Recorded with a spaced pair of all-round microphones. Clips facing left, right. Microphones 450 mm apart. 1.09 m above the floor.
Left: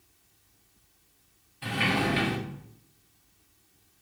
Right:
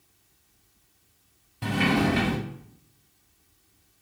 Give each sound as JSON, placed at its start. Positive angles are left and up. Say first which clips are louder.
{"t": 1.6, "sound": "a sliding door", "louder": "right 5 dB", "side_deg": -60, "distance_m": 1.0}